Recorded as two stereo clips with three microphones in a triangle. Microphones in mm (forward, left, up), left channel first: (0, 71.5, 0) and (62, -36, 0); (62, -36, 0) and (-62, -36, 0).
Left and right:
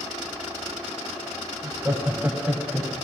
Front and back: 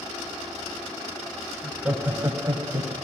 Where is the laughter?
90° right, 1.5 m; by 3.0 s 150° right, 1.8 m.